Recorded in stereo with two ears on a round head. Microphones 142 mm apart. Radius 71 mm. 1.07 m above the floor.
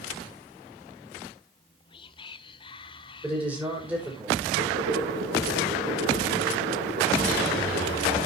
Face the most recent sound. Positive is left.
turn(degrees=-85)